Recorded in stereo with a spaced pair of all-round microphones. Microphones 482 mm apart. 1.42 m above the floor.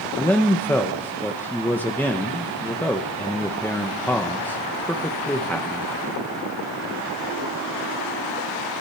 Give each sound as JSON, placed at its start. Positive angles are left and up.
{"t": 0.2, "sound": "a man speaking", "side_deg": 5, "distance_m": 1.1}